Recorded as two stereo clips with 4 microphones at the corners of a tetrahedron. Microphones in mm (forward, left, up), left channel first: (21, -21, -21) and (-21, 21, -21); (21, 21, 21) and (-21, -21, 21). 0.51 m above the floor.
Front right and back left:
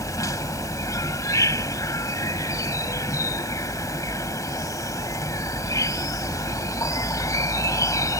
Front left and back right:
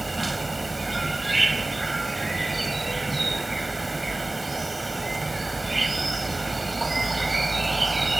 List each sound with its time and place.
0.0 s an insect: 45° right